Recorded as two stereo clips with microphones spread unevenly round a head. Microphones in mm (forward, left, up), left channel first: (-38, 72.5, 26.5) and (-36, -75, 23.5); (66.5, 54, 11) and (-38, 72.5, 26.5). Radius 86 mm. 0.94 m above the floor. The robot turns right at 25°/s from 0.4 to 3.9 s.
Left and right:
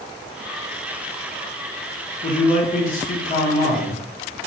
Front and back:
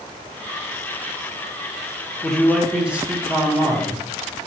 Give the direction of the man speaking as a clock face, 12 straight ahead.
10 o'clock.